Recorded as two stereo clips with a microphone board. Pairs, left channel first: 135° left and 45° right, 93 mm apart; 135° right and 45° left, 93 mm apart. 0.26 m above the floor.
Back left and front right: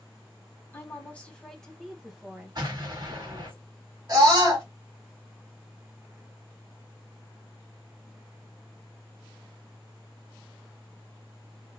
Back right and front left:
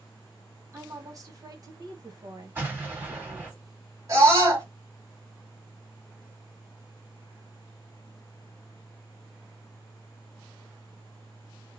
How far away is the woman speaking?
About 1.3 m.